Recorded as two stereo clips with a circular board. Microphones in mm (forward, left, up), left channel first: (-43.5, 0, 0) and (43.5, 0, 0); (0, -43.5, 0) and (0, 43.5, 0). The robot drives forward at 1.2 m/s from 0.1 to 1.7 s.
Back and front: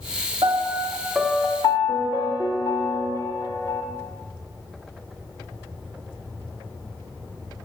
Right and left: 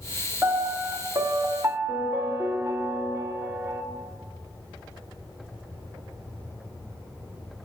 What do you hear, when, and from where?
0.4 s a piano: 20° left, 1.2 m; by 3.8 s 145° left, 0.7 m